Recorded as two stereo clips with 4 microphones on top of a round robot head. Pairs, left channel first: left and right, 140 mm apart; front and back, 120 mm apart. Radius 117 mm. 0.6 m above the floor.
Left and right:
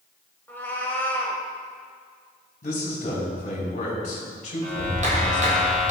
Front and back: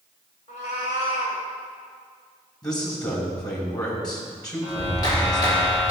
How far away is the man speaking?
About 3 m.